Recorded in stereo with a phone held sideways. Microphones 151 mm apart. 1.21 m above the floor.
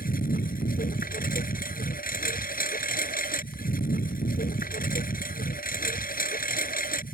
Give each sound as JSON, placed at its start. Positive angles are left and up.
{"t": 0.0, "sound": "a lawn mower", "side_deg": 70}